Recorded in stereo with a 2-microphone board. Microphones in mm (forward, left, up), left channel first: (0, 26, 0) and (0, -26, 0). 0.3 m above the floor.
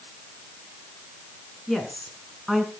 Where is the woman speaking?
5° left (ahead or behind), 3.5 m; by 2.7 s 5° right (ahead or behind), 3 m.